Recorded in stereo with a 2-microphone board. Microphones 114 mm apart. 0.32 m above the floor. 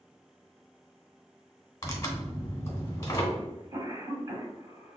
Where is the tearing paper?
25° left (ahead or behind), 1.0 m.